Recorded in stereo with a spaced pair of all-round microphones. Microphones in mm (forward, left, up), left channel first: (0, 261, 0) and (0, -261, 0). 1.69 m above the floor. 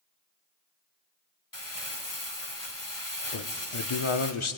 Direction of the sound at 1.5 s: 35° left (ahead or behind).